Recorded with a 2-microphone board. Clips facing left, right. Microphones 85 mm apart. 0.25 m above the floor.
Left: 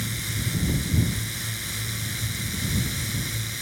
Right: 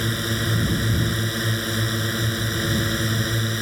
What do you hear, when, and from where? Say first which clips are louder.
0.0 s a drone: right 8 dB; 65° right (ahead or behind)